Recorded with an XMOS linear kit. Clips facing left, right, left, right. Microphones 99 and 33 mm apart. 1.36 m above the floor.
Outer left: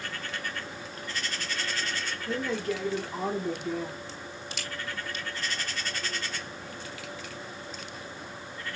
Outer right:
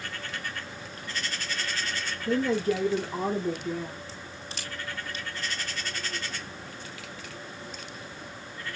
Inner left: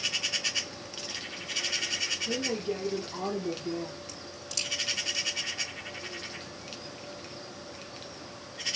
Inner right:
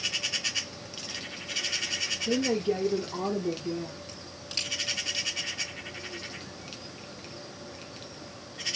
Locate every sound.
2.3 s a woman speaking: 35° right (ahead or behind), 1.9 m; by 3.9 s 20° left (ahead or behind), 1.0 m
4.1 s a crack: 40° right (ahead or behind), 3 m